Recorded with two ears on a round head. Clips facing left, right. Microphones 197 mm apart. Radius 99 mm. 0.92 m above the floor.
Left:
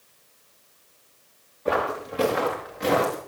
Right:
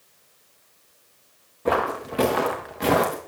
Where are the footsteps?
60° right (ahead or behind), 4 m; by 3.2 s 70° right (ahead or behind), 4.5 m.